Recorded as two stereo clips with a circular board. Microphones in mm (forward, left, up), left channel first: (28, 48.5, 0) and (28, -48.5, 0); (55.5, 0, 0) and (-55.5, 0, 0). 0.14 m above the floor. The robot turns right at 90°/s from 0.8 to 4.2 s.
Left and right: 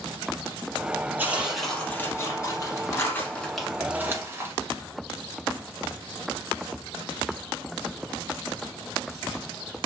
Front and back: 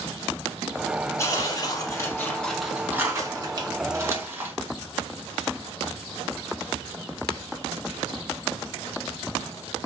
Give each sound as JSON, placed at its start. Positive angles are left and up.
{"t": 1.2, "sound": "tearing paper", "azimuth_deg": -40, "distance_m": 0.8}